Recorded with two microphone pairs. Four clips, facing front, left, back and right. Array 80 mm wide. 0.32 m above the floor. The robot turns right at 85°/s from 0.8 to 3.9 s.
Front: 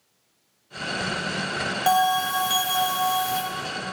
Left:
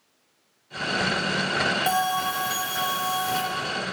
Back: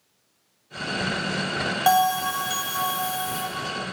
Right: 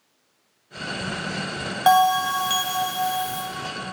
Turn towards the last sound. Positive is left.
turn(degrees=60)